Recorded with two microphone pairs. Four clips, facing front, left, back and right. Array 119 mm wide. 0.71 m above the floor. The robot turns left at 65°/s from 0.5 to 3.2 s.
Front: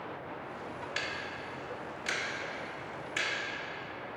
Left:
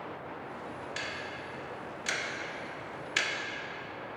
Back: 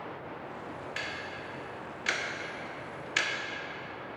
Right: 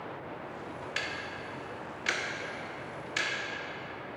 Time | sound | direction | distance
1.0 | ticking | 60° right | 0.6 m